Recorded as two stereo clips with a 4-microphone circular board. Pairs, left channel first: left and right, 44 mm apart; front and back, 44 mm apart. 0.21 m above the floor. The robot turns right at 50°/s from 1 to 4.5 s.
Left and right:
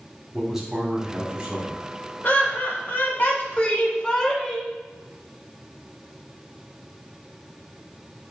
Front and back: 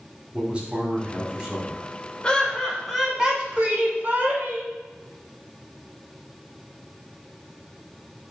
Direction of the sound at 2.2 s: 60° left.